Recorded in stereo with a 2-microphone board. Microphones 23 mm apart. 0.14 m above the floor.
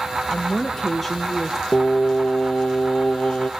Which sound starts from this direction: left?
Singing, at 1.7 s.